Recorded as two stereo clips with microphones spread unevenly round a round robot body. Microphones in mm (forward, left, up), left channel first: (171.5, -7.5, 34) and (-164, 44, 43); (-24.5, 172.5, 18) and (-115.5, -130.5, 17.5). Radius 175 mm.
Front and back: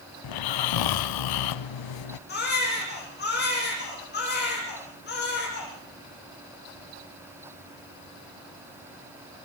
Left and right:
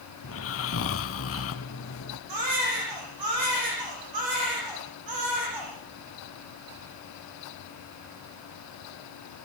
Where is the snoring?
20° left, 0.8 m.